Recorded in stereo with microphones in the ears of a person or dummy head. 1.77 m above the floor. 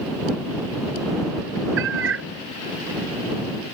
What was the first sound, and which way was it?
A cat meowing, 80° right.